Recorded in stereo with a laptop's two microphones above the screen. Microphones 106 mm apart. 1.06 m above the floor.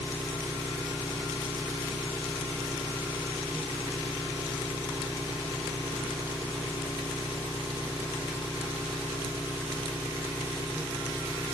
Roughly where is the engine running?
Right.